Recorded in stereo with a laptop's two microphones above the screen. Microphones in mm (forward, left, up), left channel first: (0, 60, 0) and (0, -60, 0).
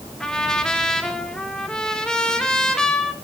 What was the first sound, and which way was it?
A trumpet, 5° left (ahead or behind).